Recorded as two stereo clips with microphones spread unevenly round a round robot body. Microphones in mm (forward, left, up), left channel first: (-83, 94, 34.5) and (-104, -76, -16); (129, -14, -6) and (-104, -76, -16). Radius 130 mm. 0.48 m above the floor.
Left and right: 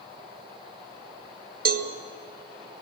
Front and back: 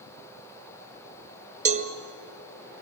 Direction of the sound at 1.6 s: 110° right.